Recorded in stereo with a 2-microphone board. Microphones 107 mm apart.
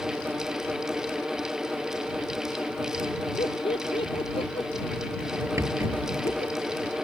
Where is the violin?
No violin in this recording.